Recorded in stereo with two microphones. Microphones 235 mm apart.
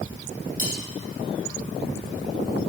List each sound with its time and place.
0.6 s cutlery clinking: 40° right (ahead or behind), 4.5 m